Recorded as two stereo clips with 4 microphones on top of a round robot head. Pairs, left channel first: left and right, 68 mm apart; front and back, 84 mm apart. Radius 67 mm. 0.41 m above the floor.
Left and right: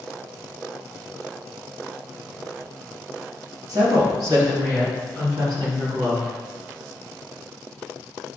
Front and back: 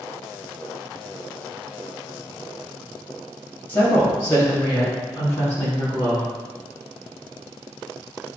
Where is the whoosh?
I don't hear a whoosh.